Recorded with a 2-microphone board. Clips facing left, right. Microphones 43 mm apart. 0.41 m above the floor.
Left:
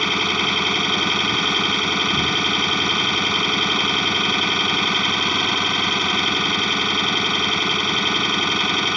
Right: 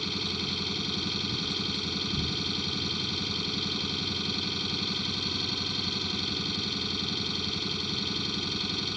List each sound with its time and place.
0.0 s an engine running: 65° left (ahead or behind)